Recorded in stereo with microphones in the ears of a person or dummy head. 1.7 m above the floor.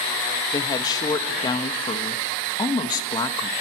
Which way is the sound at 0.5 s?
25° left (ahead or behind).